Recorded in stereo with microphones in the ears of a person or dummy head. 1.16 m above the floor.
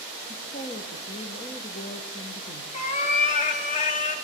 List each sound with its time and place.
0.3 s a woman speaking: 30° left (ahead or behind), 0.8 m
2.7 s a cat meowing: 40° left (ahead or behind), 0.9 m